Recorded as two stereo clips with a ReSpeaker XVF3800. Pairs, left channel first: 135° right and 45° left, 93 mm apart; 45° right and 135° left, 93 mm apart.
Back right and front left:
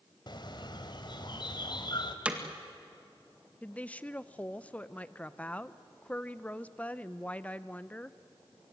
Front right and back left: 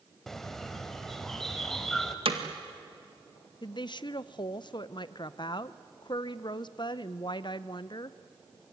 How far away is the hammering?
About 1.9 m.